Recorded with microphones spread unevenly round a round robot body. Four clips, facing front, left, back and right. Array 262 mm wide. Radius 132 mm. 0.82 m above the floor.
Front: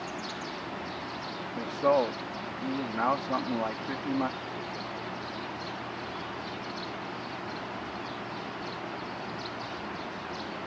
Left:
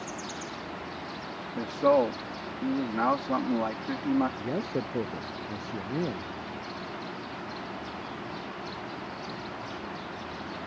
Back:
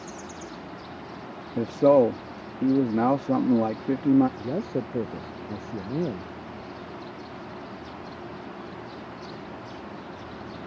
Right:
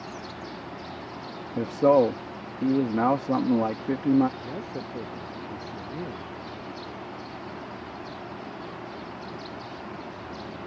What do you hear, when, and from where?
1.6 s a man speaking: 150° right
4.4 s a man speaking: 160° left